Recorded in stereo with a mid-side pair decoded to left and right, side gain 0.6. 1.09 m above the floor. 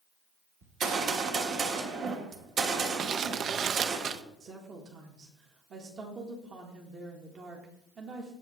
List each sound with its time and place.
0.6 s a gunshot: 55° right, 1.3 m
3.0 s crumpling: 45° right, 0.5 m
4.4 s a woman speaking: 40° right, 1.5 m